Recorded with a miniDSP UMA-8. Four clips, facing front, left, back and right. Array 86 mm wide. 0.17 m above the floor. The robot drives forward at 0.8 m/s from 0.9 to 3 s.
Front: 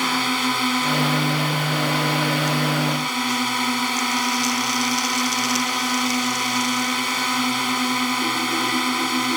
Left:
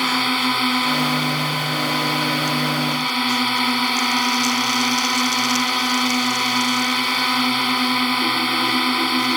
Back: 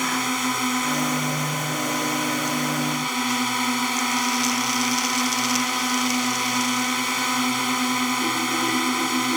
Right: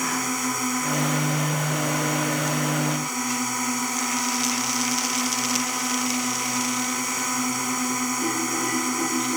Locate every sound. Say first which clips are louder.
0.0 s a drone: left 6 dB, front 2 dB; 70° left; by 9.4 s 80° left